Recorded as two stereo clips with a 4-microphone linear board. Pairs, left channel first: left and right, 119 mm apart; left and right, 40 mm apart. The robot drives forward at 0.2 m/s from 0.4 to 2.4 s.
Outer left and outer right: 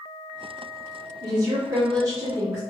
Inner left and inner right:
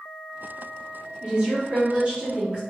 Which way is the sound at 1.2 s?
30° right (ahead or behind).